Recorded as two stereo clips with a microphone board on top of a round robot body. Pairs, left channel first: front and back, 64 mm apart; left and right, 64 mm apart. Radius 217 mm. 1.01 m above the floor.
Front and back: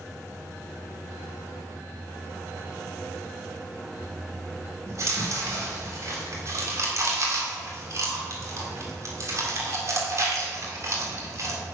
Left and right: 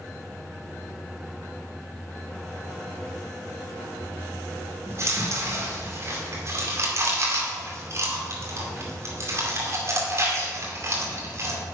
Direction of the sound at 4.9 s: 140° right.